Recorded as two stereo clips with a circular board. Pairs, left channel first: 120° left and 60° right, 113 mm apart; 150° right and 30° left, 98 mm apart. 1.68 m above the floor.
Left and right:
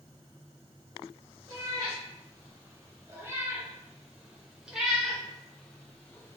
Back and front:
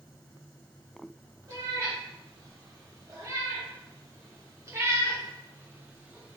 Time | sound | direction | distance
1.5 | a cat meowing | 15° right | 2.5 m